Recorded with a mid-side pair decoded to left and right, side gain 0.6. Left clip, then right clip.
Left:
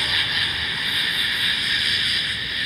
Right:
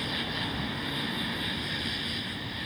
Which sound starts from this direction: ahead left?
An insect, at 0.0 s.